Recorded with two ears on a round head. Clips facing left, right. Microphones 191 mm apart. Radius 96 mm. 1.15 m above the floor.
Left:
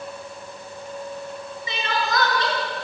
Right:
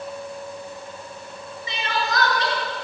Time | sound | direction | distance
1.7 | crying | 70° left (ahead or behind) | 7 m